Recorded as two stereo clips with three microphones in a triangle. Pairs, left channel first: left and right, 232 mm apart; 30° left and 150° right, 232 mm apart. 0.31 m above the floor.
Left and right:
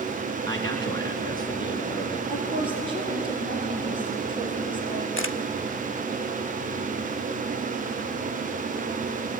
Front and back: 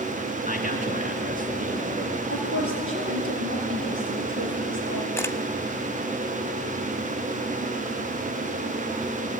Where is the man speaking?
160° left, 2.5 m.